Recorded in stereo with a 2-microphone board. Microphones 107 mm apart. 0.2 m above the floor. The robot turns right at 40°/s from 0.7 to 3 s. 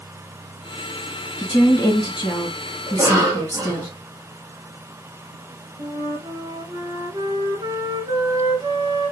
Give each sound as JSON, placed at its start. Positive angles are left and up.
{"t": 1.4, "sound": "a woman speaking", "azimuth_deg": 75, "distance_m": 1.6}
{"t": 2.9, "sound": "a cough", "side_deg": -25, "distance_m": 1.2}
{"t": 5.8, "sound": "a flute", "side_deg": -45, "distance_m": 0.9}